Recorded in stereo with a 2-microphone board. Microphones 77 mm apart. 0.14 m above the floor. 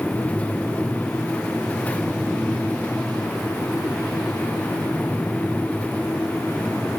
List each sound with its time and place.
Only background noise.